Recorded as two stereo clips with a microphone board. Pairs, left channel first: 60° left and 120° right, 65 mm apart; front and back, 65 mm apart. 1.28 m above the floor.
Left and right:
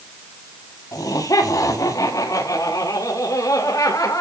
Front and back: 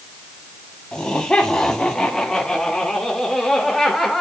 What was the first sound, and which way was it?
Laughter, 75° left.